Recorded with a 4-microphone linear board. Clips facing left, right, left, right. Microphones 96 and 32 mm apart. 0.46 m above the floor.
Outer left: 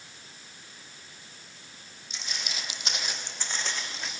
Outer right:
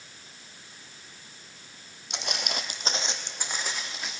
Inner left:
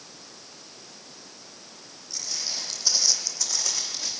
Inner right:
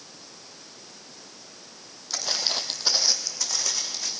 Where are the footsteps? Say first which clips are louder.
Outer right 6 dB, inner right 6 dB; 70° right (ahead or behind), 1.2 m; by 4.1 s centre (ahead or behind), 2.5 m.